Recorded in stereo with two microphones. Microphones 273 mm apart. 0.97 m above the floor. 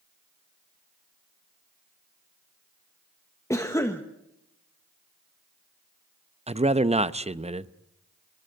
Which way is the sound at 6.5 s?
25° right (ahead or behind).